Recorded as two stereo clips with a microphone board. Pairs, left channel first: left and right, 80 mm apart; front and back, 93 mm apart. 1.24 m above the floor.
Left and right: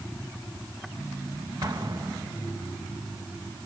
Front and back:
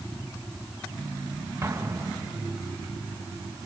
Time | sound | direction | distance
1.6 | an explosion | 125° right | 1.8 m